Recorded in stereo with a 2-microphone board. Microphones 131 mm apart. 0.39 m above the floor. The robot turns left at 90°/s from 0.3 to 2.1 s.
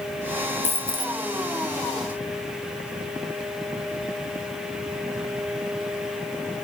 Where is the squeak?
No squeak in this recording.